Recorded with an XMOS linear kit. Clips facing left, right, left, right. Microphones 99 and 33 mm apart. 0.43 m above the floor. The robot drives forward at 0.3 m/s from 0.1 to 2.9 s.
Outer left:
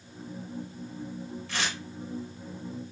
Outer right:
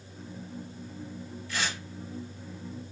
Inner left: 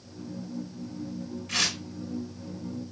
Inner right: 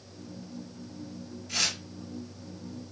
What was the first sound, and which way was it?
Tearing paper, 75° left (ahead or behind).